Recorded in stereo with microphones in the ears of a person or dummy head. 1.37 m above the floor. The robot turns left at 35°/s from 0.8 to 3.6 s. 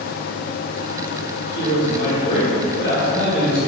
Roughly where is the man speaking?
Ahead left.